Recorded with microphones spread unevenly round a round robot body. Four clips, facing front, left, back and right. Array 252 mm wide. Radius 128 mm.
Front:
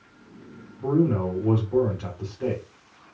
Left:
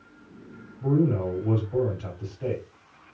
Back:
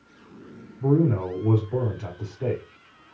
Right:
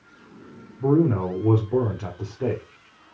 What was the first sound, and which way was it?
A man speaking, 85° right.